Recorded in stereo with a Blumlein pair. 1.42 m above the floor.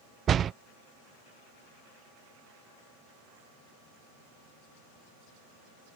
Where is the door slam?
25° right.